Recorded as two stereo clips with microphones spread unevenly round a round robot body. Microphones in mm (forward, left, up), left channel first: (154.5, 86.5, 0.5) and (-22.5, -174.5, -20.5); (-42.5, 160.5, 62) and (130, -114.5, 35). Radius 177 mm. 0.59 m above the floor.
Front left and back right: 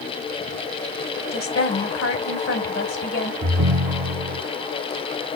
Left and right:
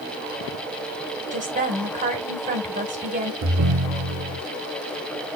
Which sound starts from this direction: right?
A ringtone, at 3.4 s.